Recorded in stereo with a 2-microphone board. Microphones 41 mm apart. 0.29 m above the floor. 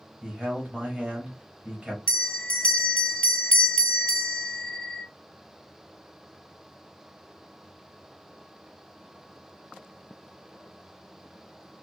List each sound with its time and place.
0.2 s a man speaking: 30° right (ahead or behind), 1.2 m
2.1 s a bell: 20° left (ahead or behind), 0.8 m